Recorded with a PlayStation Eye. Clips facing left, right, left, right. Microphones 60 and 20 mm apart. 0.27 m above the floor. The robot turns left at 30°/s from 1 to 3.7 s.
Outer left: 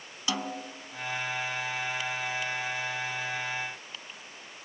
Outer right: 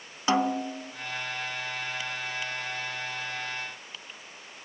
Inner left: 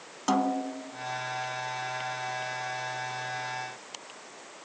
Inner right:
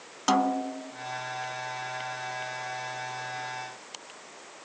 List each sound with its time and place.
0.3 s a snare drum: 40° right (ahead or behind), 0.7 m